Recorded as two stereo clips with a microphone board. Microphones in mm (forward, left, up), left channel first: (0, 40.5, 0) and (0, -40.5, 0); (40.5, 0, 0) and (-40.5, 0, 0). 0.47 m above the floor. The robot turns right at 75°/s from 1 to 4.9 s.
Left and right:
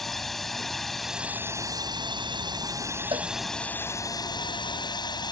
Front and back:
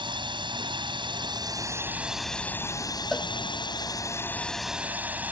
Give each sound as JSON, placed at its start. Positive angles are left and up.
{"t": 0.0, "sound": "a drone", "azimuth_deg": 175}
{"t": 3.1, "sound": "a cowbell", "azimuth_deg": -90}